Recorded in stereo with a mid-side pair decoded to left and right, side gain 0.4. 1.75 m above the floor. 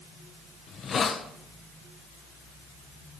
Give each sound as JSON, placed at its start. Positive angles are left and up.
{"t": 0.7, "sound": "a hiss", "azimuth_deg": 55, "distance_m": 1.1}